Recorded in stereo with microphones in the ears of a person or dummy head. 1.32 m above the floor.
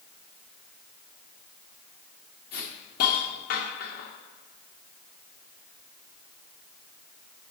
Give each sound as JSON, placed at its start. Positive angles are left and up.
{"t": 2.5, "sound": "a hiss", "side_deg": 55, "distance_m": 0.9}